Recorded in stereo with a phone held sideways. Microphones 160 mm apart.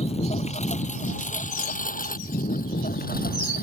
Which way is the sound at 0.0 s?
40° left (ahead or behind).